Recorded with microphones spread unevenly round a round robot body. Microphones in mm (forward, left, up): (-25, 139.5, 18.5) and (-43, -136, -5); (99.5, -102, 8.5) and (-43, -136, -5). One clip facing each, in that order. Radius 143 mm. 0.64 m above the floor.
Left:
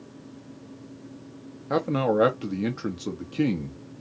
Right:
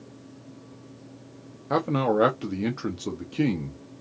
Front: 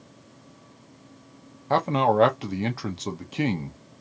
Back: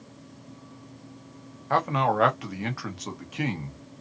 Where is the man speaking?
15° right, 1.0 m.